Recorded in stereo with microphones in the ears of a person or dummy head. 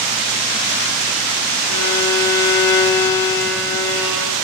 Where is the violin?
75° left (ahead or behind), 2 m.